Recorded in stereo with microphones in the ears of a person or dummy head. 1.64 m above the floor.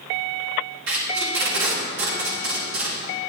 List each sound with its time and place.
0.9 s tape being pulled: 65° right (ahead or behind), 2.5 m